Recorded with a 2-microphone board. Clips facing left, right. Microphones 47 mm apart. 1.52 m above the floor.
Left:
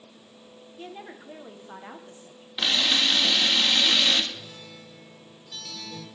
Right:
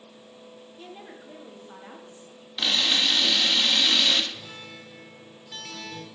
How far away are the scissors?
No scissors in this recording.